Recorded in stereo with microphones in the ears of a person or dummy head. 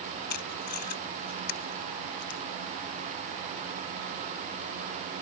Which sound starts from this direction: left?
Tape being pulled, at 0.3 s.